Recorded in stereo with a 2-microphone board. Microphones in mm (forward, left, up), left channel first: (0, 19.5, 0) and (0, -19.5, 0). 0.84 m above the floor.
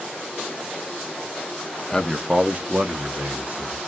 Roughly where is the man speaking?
Centre.